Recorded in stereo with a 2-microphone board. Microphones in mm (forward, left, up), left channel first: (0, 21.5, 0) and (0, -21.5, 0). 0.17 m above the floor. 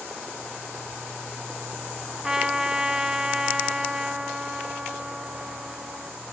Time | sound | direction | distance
2.2 | a trumpet | 15° right (ahead or behind) | 0.8 m